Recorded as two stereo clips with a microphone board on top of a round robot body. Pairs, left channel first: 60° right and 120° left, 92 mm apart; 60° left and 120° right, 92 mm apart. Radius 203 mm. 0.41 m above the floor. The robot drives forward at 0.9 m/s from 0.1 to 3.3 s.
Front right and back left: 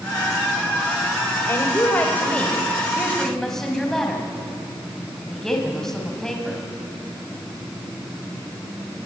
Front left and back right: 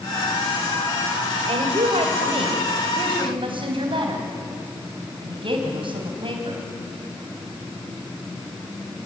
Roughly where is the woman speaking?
Behind right.